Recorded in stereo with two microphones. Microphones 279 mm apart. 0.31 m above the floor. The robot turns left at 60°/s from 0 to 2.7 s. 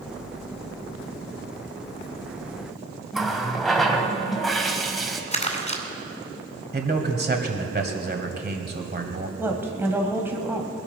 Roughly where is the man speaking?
Right.